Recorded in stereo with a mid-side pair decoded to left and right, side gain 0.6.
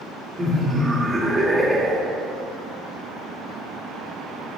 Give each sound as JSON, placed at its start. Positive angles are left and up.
{"t": 0.4, "sound": "laughter", "azimuth_deg": -20, "distance_m": 1.6}